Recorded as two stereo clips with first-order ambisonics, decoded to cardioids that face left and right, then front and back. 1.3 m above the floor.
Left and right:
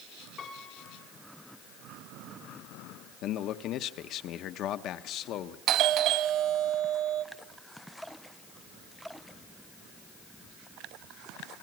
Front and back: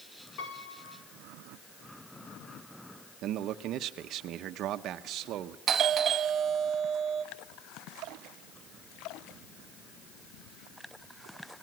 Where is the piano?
25° left, 4 m.